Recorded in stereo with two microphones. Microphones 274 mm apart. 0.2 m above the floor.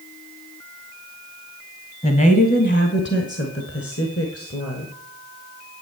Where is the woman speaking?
25° left (ahead or behind), 1.2 m; by 4.9 s 55° left (ahead or behind), 2.5 m.